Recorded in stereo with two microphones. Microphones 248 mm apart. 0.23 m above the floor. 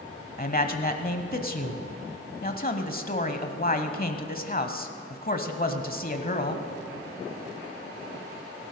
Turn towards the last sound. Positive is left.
turn(degrees=35)  # may be behind; listen again after turning